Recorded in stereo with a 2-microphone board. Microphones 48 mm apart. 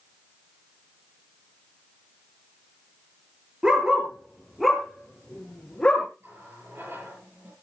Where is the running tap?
55° right (ahead or behind), 8 m.